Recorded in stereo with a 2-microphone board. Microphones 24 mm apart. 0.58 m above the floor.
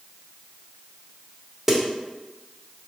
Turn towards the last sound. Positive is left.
turn(degrees=-5)  # may be behind; listen again after turning